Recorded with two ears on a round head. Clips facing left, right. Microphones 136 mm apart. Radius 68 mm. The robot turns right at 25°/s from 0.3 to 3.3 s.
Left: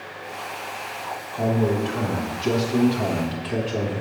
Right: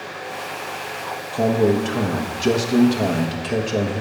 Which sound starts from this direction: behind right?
A man speaking, at 1.3 s.